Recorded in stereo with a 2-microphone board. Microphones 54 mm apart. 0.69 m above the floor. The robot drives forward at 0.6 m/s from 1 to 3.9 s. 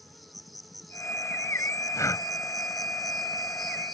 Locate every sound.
0.0 s an insect: centre (ahead or behind)
1.9 s breathing: 75° left (ahead or behind); by 2.3 s 80° left